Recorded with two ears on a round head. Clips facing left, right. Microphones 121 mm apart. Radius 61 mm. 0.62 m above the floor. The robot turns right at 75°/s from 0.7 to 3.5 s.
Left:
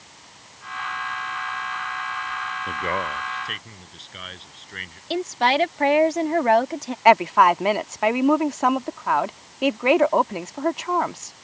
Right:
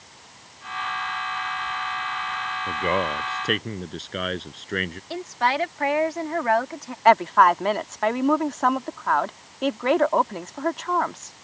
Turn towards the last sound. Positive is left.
turn(degrees=10)  # may be behind; listen again after turning